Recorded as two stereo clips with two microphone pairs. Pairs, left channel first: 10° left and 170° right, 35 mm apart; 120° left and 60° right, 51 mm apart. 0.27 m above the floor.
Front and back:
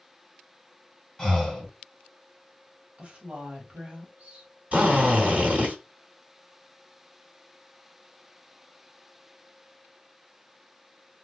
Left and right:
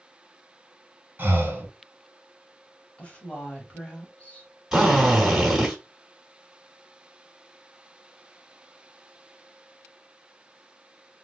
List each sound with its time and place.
1.2 s breathing: 60° right, 1.4 m
3.0 s a woman speaking: 165° left, 1.2 m
4.7 s a drill: 130° right, 2.5 m